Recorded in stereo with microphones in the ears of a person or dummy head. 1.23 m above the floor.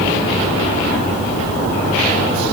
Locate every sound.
Only background noise.